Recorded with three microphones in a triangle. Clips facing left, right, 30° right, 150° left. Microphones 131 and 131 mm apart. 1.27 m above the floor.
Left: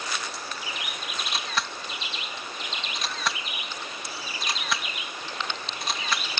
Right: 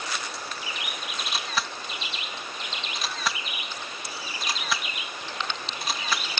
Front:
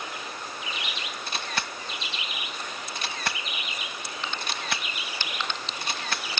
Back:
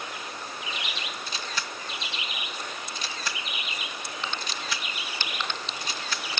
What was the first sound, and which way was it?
A camera shutter, straight ahead.